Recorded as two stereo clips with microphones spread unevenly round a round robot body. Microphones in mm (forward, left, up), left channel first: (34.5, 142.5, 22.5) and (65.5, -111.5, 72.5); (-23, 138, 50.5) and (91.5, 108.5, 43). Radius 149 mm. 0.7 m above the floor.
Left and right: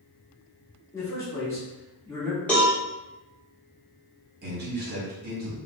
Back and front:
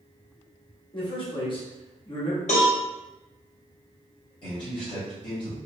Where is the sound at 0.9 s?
155° left, 1.2 m.